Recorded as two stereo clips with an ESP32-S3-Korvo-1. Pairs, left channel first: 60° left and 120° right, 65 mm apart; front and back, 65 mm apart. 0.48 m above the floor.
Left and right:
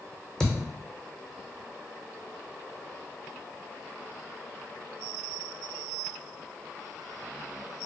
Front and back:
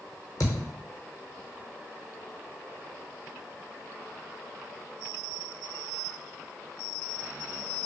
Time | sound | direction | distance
0.4 | a thud | 15° right | 1.0 m